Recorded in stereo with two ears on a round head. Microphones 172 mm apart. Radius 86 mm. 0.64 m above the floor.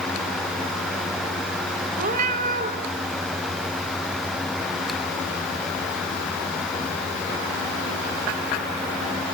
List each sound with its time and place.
2.0 s a cat meowing: 40° right (ahead or behind), 1.1 m